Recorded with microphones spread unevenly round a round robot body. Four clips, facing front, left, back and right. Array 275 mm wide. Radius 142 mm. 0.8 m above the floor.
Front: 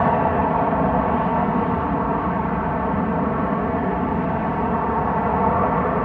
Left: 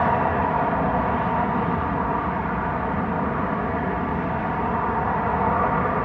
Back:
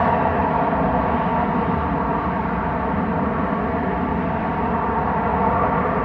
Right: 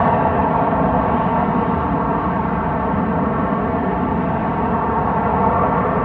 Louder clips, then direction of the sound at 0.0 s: Right 5 dB, even; 85° right.